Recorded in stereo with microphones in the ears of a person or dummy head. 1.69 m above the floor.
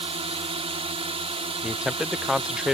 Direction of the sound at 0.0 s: 30° right (ahead or behind).